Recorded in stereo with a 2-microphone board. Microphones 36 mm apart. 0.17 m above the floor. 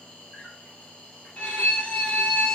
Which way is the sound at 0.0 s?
30° left (ahead or behind).